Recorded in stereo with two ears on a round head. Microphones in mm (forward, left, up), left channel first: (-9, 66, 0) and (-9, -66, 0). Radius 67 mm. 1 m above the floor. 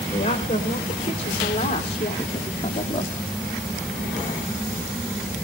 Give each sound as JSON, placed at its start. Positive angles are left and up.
{"t": 0.1, "sound": "a woman speaking", "side_deg": 45, "distance_m": 3.5}